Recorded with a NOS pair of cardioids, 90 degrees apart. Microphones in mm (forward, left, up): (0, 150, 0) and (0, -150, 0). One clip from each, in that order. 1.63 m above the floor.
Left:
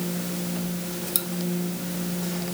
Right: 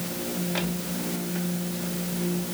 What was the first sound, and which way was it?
Only background noise.